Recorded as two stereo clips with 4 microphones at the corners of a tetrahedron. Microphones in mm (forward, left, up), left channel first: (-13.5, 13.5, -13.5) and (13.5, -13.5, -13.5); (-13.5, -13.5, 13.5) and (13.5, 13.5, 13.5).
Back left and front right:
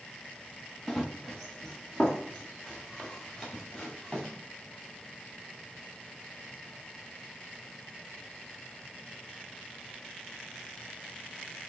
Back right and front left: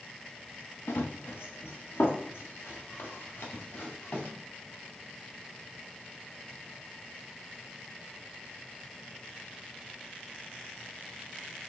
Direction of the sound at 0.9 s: 140° right.